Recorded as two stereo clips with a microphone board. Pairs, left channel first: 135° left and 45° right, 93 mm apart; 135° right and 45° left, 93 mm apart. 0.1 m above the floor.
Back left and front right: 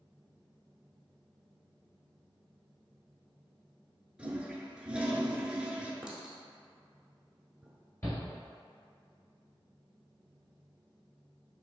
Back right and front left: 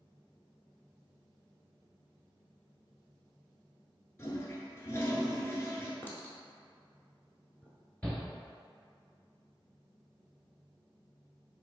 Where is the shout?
155° left, 1.3 m.